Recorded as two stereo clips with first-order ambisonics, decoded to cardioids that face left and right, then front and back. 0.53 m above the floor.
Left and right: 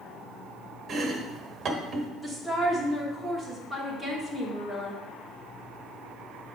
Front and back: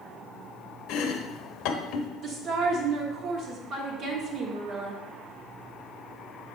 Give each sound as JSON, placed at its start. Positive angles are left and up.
{"t": 0.9, "sound": "chopping", "azimuth_deg": -30, "distance_m": 0.9}
{"t": 2.2, "sound": "a woman speaking", "azimuth_deg": 180, "distance_m": 1.1}